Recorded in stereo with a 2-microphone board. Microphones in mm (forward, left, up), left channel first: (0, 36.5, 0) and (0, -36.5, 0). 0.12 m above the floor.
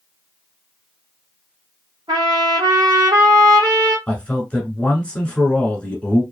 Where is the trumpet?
75° right (ahead or behind), 1.2 m.